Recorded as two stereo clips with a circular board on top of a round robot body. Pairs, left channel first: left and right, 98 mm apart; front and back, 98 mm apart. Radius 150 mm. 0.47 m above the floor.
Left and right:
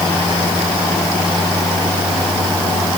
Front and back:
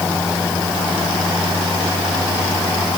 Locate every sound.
Only background noise.